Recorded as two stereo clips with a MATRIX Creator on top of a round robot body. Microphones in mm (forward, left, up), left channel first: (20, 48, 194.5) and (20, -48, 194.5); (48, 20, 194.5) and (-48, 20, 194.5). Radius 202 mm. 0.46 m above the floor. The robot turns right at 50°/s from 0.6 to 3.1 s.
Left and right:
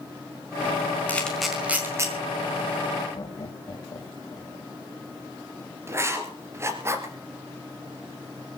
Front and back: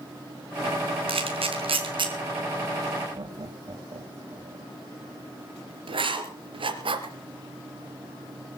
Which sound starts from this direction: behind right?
Writing, at 5.9 s.